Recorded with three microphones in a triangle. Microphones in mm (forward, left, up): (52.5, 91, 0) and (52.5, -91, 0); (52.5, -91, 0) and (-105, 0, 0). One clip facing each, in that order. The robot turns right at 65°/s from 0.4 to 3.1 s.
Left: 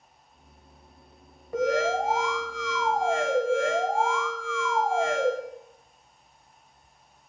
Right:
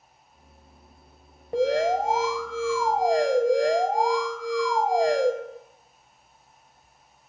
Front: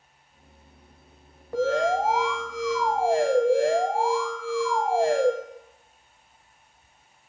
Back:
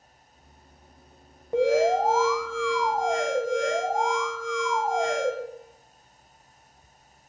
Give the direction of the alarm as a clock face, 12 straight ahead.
5 o'clock.